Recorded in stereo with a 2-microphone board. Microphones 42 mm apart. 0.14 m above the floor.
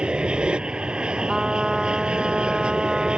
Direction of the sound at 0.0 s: 25° right (ahead or behind).